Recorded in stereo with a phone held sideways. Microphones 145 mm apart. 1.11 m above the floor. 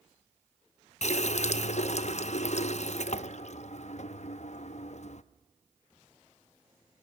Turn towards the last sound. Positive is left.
turn(degrees=55)  # may be behind; listen again after turning